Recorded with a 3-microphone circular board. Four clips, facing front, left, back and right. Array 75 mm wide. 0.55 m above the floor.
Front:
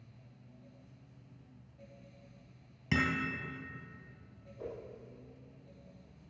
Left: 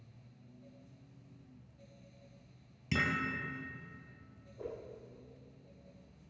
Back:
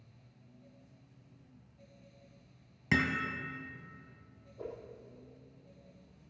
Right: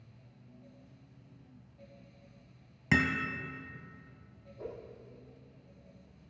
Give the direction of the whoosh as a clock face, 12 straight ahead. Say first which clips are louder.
Even, even; 7 o'clock.